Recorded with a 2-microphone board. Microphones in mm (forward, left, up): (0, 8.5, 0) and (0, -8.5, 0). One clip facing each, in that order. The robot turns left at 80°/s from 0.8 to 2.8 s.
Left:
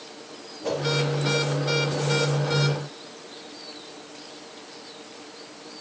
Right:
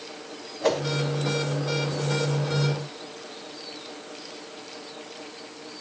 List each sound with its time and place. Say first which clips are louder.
0.6 s a whoosh: right 4 dB; 60° right (ahead or behind), 1.4 m